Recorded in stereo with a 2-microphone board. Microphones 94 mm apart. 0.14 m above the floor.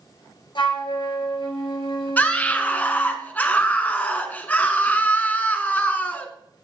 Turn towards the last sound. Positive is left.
turn(degrees=20)  # may be behind; listen again after turning